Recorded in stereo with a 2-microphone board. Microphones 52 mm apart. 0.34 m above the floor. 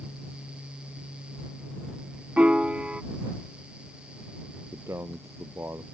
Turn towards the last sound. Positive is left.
turn(degrees=-60)  # may be behind; listen again after turning